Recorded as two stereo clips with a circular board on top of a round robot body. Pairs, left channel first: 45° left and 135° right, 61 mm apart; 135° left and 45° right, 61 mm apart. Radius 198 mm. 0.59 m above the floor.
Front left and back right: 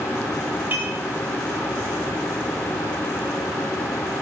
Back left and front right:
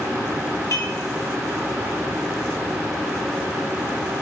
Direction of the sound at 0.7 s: 170° left.